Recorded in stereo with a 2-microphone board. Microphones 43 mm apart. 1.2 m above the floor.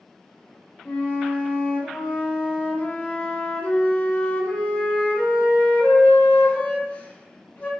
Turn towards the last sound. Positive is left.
turn(degrees=35)  # may be behind; listen again after turning